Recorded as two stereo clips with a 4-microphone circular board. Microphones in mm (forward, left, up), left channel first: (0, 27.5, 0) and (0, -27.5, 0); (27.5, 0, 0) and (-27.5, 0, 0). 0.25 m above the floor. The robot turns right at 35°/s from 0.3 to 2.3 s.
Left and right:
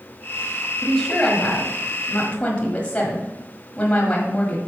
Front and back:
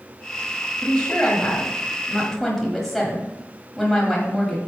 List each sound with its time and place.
0.8 s a woman speaking: 25° left, 1.5 m; by 4.6 s 80° left, 1.5 m